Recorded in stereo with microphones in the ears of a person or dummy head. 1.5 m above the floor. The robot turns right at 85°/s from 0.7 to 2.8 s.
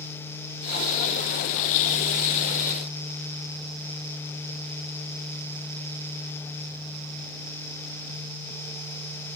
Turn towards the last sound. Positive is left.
No sound to turn to.